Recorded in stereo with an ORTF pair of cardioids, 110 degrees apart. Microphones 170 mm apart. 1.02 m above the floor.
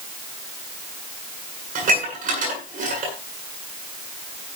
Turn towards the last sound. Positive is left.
turn(degrees=-55)